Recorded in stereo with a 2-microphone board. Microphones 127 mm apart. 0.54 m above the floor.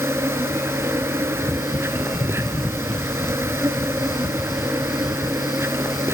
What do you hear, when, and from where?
0.0 s an insect: 20° right (ahead or behind), 1.0 m